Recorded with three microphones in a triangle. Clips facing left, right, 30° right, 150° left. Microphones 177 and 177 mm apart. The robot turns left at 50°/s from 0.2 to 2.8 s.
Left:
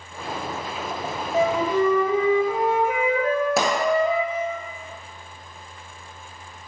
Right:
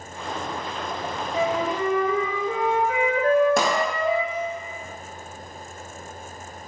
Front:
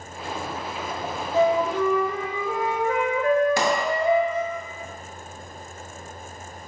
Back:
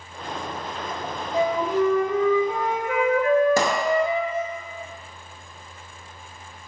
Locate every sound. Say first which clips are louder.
1.3 s a flute: left 4 dB, front 1 dB; 90° left, 1.1 m; by 4.6 s 15° left, 1.1 m
3.6 s a pop: even, back 2 dB; 175° left, 0.9 m